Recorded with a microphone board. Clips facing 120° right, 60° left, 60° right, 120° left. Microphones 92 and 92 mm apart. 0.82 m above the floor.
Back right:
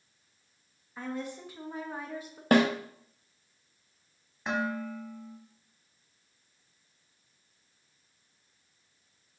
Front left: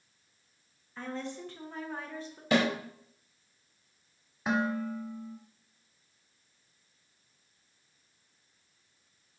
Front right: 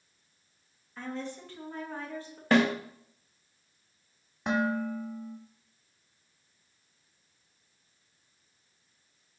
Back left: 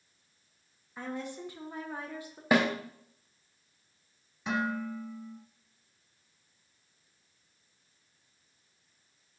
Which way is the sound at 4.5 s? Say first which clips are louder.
Front left 2 dB, front right 4 dB; 20° right.